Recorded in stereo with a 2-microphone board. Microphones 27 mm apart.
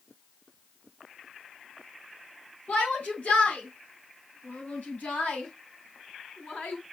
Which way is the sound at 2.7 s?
75° left (ahead or behind).